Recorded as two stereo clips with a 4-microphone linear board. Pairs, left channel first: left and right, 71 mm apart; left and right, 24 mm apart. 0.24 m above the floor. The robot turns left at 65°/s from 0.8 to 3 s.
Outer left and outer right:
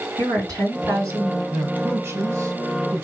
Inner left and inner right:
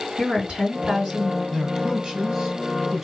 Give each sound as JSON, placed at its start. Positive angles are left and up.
{"t": 0.2, "sound": "a woman speaking", "azimuth_deg": -85, "distance_m": 2.5}
{"t": 1.5, "sound": "a man speaking", "azimuth_deg": -30, "distance_m": 1.2}